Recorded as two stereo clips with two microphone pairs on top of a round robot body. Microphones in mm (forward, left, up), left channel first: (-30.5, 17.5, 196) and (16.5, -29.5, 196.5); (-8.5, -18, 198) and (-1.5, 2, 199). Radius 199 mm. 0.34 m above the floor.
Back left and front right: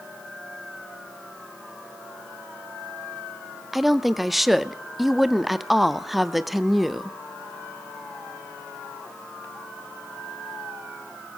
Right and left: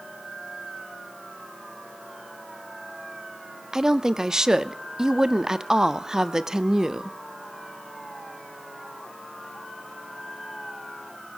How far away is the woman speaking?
About 1.2 m.